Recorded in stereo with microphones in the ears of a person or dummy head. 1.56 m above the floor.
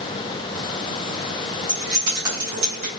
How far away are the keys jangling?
About 1.5 m.